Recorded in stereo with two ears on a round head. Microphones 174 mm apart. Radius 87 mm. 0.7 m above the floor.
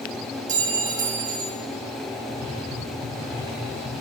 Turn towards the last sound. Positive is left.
turn(degrees=-55)  # may be behind; listen again after turning